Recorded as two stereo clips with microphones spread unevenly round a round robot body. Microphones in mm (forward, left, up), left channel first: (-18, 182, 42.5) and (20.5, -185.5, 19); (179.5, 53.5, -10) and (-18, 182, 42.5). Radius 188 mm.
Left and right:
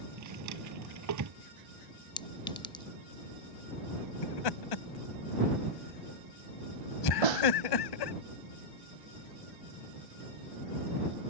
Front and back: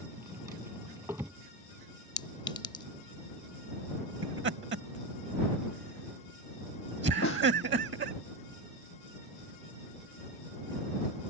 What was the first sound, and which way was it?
A drawer, 130° right.